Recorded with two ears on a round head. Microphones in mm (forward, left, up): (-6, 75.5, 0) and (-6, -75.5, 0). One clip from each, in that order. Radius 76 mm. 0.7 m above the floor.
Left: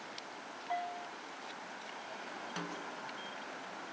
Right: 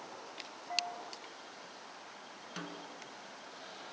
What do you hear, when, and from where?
0.7 s a bell: 70° left (ahead or behind), 2.5 m
2.6 s a snare drum: centre (ahead or behind), 1.1 m